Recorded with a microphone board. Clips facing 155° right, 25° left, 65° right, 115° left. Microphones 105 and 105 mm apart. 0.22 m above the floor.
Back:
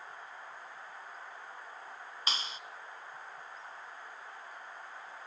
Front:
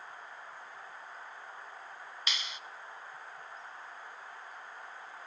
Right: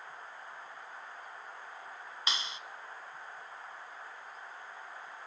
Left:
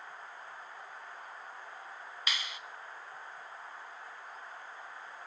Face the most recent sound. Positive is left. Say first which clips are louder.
# back 3 dB, right 1 dB
turn(degrees=-120)